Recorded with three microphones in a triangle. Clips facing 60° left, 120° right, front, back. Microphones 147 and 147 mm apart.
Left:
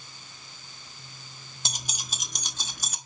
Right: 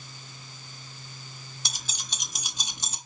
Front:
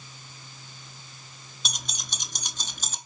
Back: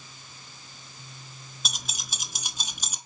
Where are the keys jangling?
95° left, 0.9 m; by 3.0 s 115° right, 0.9 m.